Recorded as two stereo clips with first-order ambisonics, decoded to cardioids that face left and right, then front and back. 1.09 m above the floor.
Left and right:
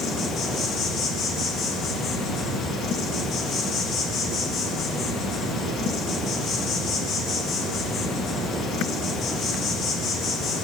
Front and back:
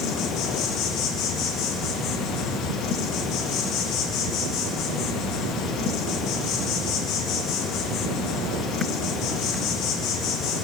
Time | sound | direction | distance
0.0 | an insect | 40° left | 1.7 m